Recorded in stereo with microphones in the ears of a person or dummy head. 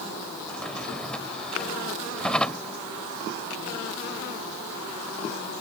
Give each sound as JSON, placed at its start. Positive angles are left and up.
{"t": 0.5, "sound": "a drawer", "side_deg": 10}